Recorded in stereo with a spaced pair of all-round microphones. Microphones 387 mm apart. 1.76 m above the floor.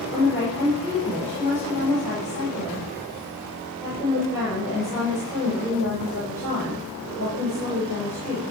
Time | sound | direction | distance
0.1 | a woman speaking | 5° right (ahead or behind) | 5.5 m